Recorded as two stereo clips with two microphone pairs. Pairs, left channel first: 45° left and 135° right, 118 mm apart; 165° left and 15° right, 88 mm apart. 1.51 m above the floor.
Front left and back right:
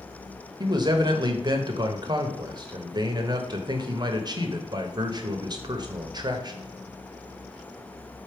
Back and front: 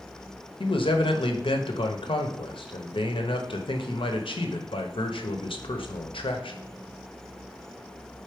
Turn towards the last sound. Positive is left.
turn(degrees=175)